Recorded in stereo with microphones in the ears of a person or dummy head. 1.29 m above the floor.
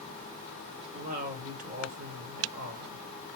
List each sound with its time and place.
0.9 s a woman speaking: 40° right (ahead or behind), 1.3 m